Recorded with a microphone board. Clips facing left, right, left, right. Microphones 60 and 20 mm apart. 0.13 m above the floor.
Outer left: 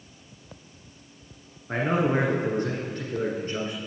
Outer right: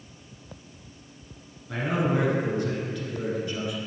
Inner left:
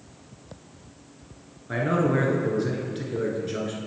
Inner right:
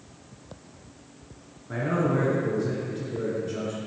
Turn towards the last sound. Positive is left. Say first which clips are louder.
# outer left 2 dB, inner left 2 dB
turn(degrees=40)  # may be behind; listen again after turning